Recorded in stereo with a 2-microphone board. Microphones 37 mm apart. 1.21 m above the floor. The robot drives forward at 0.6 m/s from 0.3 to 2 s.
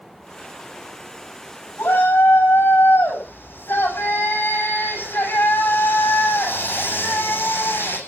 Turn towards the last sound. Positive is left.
turn(degrees=80)